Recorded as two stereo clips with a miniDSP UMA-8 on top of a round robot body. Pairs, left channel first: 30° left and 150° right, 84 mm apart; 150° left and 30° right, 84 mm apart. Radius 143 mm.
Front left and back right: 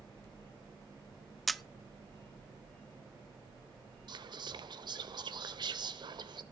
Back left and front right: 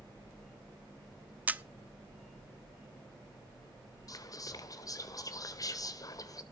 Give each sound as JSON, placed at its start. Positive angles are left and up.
{"t": 1.5, "sound": "a camera shutter", "azimuth_deg": -60, "distance_m": 0.8}
{"t": 4.1, "sound": "whispering", "azimuth_deg": -170, "distance_m": 1.7}